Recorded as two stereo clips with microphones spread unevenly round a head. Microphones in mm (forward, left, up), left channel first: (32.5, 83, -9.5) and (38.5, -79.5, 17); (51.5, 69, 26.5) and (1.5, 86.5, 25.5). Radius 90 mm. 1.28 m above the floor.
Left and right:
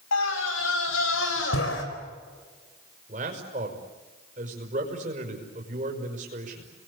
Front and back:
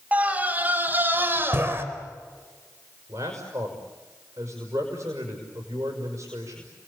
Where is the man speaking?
140° right, 6 m.